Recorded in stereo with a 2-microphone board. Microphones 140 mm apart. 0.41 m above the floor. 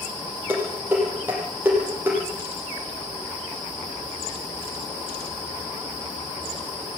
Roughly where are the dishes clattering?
Centre.